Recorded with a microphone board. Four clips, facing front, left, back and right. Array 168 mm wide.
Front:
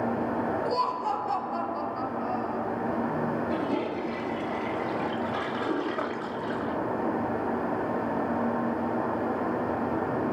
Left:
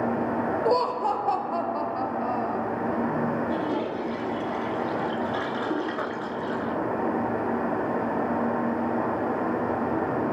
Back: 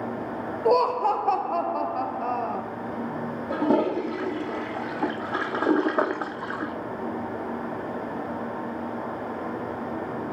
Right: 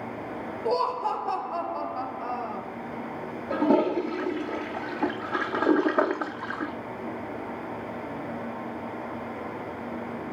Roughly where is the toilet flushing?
Behind right.